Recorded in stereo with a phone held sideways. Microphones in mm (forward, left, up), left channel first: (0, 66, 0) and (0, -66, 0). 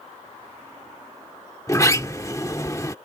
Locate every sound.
1.7 s a sliding door: 25° left (ahead or behind)